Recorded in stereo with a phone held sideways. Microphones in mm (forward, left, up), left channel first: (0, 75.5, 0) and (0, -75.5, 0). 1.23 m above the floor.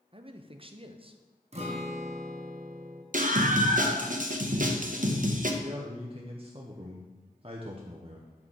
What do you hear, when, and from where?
0.1 s a man speaking: 40° right (ahead or behind), 0.5 m
1.5 s a guitar: 45° right (ahead or behind), 0.8 m
3.1 s a scream: 60° right (ahead or behind), 0.8 m
5.6 s a man speaking: 40° right (ahead or behind), 0.7 m